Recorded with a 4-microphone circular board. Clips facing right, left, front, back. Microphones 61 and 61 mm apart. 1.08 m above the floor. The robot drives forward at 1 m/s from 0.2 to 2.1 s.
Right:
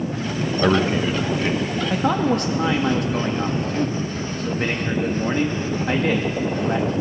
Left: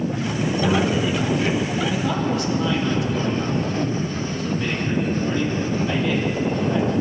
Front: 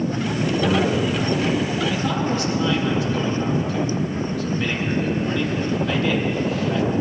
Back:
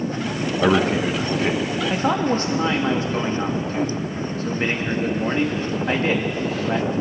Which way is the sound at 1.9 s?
120° right.